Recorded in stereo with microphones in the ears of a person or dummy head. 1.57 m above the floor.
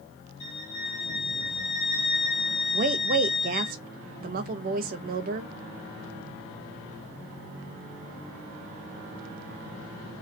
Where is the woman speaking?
45° right (ahead or behind), 0.5 m.